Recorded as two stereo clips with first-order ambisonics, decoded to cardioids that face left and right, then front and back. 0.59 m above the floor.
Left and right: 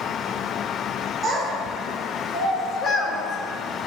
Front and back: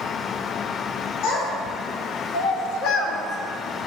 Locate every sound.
1.2 s a child speaking: 5° right, 2.5 m; by 3.9 s 85° left, 1.1 m